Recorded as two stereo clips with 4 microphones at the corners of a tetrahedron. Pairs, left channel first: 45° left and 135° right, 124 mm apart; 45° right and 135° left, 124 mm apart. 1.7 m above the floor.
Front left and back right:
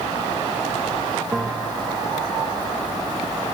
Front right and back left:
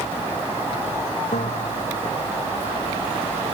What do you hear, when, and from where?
1.3 s a bell: 45° right